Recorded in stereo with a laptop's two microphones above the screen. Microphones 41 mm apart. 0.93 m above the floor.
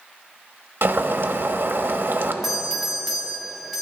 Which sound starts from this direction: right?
Boiling, at 0.8 s.